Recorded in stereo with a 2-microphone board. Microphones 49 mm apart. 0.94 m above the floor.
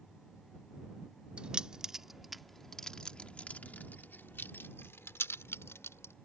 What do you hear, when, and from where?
1.4 s keys jangling: 25° right (ahead or behind); by 6.1 s 70° left (ahead or behind)